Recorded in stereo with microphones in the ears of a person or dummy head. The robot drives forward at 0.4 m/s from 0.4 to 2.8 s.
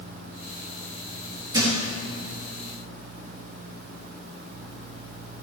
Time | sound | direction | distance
1.5 | a thud | 25° right (ahead or behind) | 4.5 m